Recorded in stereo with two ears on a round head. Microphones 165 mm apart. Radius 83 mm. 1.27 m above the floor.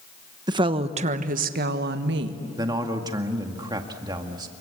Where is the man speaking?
20° right (ahead or behind), 1.9 m.